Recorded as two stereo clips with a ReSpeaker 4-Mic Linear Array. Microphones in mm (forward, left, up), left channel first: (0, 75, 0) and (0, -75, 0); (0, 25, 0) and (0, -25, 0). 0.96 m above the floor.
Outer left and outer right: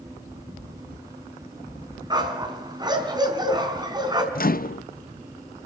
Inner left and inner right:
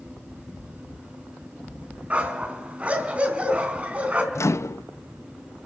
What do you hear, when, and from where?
2.1 s a dog barking: 30° right (ahead or behind), 3.5 m
4.3 s a microwave: 75° left (ahead or behind), 0.6 m